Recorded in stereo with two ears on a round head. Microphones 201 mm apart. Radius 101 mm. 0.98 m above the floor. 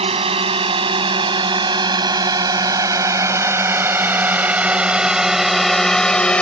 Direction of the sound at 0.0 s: 25° right (ahead or behind).